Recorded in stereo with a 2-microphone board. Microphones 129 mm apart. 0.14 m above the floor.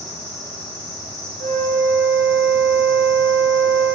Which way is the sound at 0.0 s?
30° left (ahead or behind).